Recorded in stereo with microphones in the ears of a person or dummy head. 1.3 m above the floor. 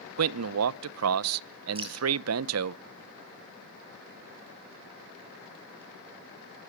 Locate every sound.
0.2 s a man speaking: 80° right, 0.5 m
1.8 s dripping: 25° right (ahead or behind), 4 m